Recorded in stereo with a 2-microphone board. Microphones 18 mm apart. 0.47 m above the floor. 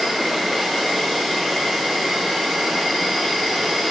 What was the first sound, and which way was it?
An insect, 75° right (ahead or behind).